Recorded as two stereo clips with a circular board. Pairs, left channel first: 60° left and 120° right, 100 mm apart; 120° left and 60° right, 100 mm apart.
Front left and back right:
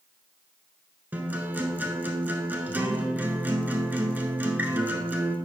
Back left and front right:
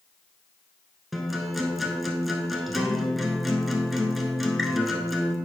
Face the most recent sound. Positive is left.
turn(degrees=-150)